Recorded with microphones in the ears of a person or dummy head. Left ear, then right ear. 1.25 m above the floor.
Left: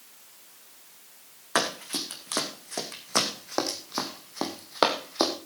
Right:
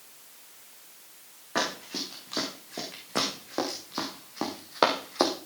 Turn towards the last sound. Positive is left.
turn(degrees=-5)  # may be behind; listen again after turning